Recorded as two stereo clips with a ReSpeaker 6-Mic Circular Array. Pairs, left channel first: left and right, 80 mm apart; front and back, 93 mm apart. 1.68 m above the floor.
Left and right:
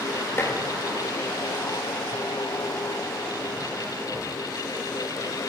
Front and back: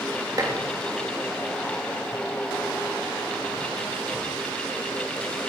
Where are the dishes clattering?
140° left, 1.4 m.